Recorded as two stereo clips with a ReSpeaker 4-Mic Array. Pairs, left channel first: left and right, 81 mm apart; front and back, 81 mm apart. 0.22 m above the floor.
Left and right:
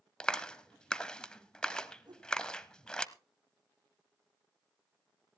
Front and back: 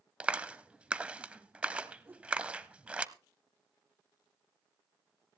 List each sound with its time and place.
0.2 s a clap: 145° left, 0.7 m
2.1 s a whoosh: 115° right, 6 m